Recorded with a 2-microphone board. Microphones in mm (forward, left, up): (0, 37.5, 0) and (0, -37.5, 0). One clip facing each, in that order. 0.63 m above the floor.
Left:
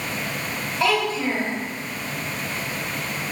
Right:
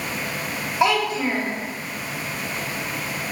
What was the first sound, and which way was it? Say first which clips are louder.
A child speaking: right 2 dB; 20° right (ahead or behind).